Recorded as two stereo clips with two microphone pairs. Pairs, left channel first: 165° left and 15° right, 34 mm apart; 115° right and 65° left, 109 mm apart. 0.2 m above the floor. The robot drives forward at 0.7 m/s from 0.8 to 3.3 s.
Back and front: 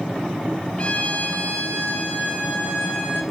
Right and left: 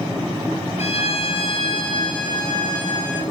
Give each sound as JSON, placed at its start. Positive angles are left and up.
{"t": 0.8, "sound": "a violin", "azimuth_deg": -135, "distance_m": 0.8}